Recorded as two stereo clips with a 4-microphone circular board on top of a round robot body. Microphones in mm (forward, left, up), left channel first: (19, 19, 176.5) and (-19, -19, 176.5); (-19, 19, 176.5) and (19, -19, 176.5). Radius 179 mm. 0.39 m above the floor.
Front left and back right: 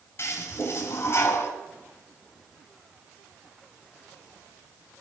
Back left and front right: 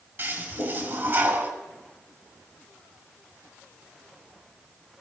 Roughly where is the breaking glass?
No breaking glass in this recording.